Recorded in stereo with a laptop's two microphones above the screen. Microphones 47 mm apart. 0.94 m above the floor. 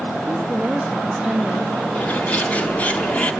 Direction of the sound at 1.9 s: 25° left (ahead or behind).